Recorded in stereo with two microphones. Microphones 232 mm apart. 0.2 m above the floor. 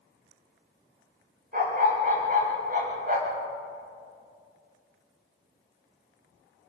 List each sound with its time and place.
1.5 s a dog barking: 35° right (ahead or behind), 7.5 m